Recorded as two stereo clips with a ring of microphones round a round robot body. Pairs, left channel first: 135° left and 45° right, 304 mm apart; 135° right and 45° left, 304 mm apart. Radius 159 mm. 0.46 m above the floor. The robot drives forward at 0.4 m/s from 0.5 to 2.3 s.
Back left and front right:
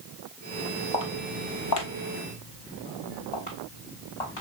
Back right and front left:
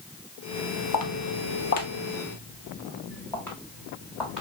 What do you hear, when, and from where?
0.9 s footsteps: 150° right, 0.6 m; by 4.4 s 130° left, 2 m